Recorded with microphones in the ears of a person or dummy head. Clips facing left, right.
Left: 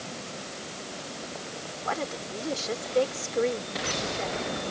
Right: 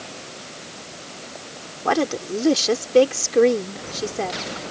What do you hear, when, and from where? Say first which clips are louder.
1.9 s a woman speaking: right 12 dB; 65° right (ahead or behind)